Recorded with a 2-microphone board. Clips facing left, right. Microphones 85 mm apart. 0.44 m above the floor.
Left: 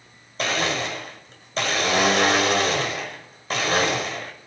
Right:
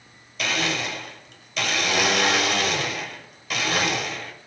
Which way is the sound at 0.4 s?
35° left (ahead or behind).